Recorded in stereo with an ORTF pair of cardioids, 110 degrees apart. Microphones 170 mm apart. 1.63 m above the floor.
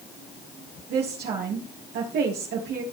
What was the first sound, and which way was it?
A woman speaking, 70° right.